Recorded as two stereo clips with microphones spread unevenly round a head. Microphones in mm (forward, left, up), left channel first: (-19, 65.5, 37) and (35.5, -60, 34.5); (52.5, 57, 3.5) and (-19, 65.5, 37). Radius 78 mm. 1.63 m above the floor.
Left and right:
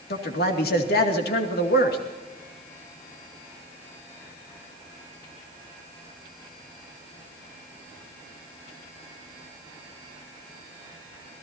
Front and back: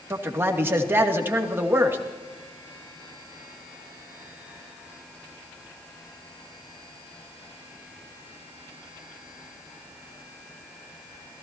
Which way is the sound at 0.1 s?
120° left.